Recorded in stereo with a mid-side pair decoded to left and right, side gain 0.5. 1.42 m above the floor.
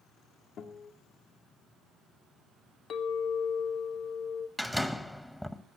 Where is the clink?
60° left, 1.4 m.